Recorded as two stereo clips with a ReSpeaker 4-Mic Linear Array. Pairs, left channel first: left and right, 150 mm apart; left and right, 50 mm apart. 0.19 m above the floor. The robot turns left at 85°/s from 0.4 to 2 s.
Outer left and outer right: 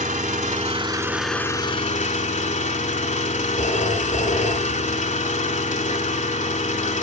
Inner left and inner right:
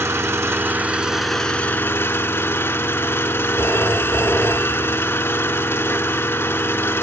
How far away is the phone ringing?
About 2 m.